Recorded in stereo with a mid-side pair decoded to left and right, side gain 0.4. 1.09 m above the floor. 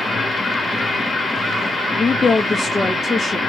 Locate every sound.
0.0 s a machine running: 35° left, 1.5 m
2.0 s a woman speaking: 35° left, 0.8 m